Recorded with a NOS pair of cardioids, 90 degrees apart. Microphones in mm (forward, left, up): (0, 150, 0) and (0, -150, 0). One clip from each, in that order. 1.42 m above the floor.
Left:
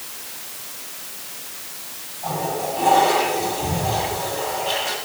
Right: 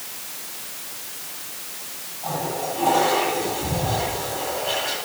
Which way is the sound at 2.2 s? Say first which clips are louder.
Left 2 dB; 20° left.